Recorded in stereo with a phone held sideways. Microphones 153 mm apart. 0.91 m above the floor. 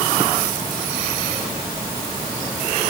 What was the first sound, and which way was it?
Only background noise.